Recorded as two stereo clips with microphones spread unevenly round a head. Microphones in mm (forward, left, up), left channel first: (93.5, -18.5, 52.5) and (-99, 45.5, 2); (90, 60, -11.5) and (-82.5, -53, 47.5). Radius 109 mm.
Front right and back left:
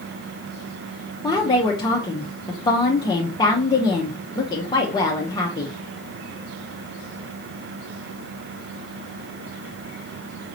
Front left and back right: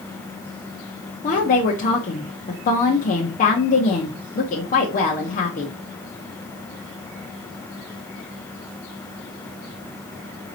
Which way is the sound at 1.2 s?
60° left.